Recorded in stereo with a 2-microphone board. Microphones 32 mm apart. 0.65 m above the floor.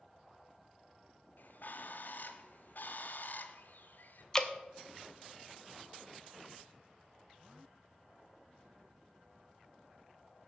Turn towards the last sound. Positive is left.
turn(degrees=20)  # may be behind; listen again after turning